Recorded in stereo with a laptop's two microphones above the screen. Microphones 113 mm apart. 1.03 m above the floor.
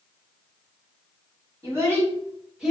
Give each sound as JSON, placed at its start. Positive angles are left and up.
{"t": 1.6, "sound": "a child speaking", "side_deg": -20, "distance_m": 1.3}